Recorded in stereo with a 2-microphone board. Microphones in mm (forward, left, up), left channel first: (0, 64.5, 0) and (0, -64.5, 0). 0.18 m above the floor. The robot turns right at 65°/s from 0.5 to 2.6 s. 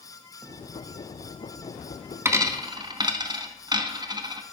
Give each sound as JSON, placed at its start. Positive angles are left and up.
{"t": 2.2, "sound": "a dropped coin", "side_deg": -20, "distance_m": 0.7}